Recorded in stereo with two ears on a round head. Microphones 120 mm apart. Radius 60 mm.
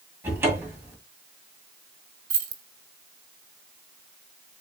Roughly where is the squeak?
I don't hear a squeak.